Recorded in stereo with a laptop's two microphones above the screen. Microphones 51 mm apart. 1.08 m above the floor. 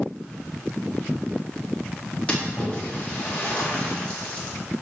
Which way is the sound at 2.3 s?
25° left (ahead or behind).